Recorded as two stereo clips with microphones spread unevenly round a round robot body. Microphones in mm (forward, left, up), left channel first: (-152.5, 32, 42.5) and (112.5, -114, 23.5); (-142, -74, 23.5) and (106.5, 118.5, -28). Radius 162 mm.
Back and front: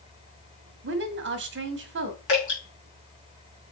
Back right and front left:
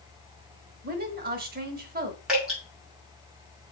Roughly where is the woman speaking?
Ahead.